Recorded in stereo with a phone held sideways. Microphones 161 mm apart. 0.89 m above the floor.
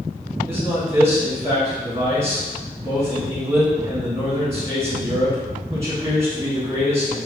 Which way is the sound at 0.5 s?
20° right (ahead or behind).